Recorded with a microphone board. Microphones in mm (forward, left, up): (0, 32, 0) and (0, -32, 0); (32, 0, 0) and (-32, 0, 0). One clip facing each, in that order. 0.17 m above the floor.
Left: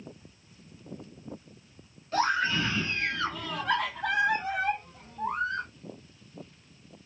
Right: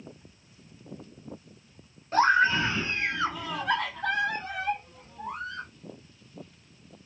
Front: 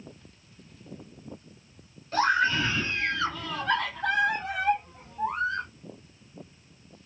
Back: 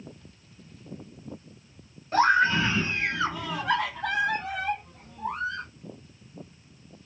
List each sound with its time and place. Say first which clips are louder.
2.1 s a scream: right 5 dB, back 3 dB; 130° right, 1.5 m; by 5.7 s 60° left, 1.5 m